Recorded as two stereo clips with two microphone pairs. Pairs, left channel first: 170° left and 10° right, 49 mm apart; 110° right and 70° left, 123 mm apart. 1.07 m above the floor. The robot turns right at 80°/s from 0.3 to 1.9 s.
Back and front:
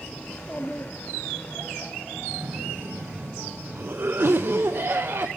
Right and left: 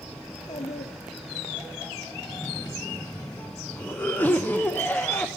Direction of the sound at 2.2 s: 35° right.